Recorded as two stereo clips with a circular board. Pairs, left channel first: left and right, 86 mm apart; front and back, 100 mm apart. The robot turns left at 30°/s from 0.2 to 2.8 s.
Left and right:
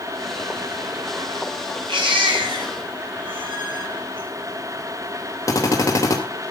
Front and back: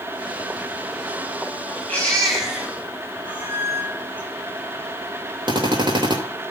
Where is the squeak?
115° right, 9 m.